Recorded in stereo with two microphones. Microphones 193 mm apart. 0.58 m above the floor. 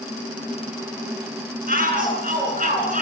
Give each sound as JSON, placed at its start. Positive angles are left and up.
{"t": 1.7, "sound": "a shout", "side_deg": -45, "distance_m": 7.0}